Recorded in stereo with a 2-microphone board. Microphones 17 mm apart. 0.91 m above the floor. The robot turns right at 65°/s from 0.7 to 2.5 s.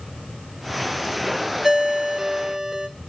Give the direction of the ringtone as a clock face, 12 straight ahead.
5 o'clock.